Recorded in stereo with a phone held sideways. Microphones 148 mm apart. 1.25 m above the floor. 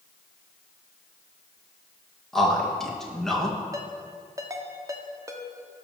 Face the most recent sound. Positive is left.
turn(degrees=-20)  # may be behind; listen again after turning